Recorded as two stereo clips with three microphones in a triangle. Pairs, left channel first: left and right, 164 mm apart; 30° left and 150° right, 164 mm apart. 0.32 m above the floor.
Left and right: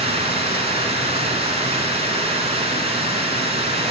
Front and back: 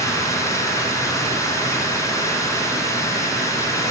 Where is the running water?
40° right, 1.6 m.